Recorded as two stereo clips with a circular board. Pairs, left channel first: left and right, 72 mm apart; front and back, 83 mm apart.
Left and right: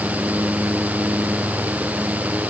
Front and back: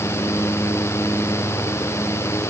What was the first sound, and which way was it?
Only background noise.